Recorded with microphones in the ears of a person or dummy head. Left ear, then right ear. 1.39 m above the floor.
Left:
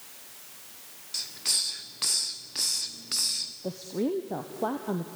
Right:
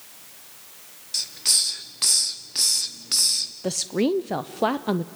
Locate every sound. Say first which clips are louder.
1.1 s a hiss: right 6 dB; 5° right (ahead or behind), 0.9 m
3.6 s a woman speaking: right 9 dB; 65° right (ahead or behind), 0.5 m